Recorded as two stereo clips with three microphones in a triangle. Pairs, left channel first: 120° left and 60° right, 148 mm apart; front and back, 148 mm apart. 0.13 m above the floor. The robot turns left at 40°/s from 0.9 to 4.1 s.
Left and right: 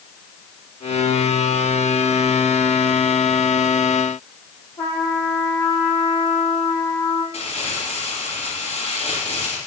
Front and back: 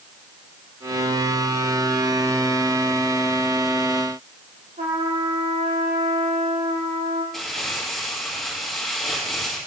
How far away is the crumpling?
About 3 m.